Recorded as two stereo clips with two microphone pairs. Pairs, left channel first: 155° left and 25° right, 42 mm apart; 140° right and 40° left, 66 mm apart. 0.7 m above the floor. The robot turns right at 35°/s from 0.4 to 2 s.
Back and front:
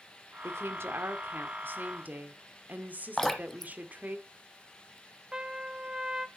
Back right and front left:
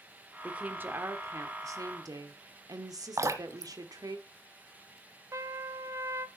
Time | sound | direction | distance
0.4 | a woman speaking | 35° right | 1.5 m
3.2 | dripping | 75° left | 1.1 m
5.3 | a trumpet | 40° left | 0.6 m